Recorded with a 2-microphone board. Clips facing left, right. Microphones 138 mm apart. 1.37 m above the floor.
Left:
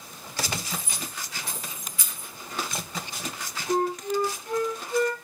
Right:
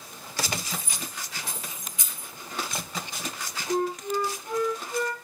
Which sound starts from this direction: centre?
Keys jangling, at 0.7 s.